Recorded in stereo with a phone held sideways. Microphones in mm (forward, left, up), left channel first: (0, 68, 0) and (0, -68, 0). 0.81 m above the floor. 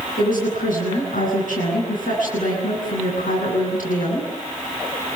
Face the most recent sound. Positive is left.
turn(degrees=85)